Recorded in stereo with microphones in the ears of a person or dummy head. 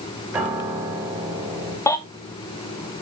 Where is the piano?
10° right (ahead or behind), 3.5 m.